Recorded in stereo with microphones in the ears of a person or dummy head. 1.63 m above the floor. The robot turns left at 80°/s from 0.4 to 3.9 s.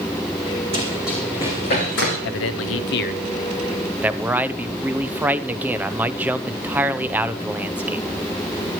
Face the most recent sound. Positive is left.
turn(degrees=-15)